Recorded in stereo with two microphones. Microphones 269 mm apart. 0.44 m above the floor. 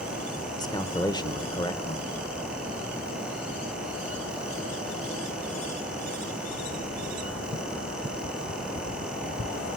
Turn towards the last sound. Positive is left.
turn(degrees=15)  # may be behind; listen again after turning